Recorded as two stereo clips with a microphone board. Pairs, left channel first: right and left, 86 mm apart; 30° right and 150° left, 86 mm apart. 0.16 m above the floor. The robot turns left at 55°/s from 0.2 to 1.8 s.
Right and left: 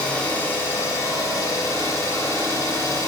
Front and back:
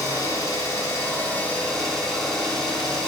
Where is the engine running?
25° right, 1.0 m; by 3.1 s 110° right, 1.0 m.